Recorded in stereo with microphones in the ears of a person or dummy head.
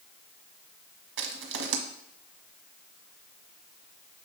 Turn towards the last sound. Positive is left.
turn(degrees=-65)  # may be behind; listen again after turning